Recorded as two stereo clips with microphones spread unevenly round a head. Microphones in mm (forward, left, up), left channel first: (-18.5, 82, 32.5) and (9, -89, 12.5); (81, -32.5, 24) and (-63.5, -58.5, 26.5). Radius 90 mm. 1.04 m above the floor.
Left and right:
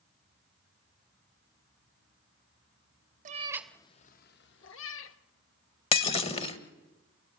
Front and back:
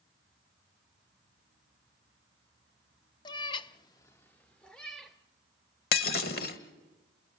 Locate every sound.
3.2 s a cat meowing: 40° right, 0.6 m; by 5.2 s 100° left, 1.5 m
5.9 s breaking glass: 45° left, 1.3 m